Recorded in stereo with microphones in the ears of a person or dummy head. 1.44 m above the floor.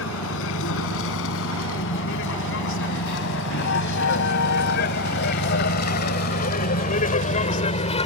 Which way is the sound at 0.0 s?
75° left (ahead or behind).